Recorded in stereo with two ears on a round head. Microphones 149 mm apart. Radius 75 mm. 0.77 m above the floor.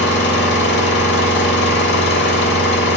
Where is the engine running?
75° left (ahead or behind), 1.1 m.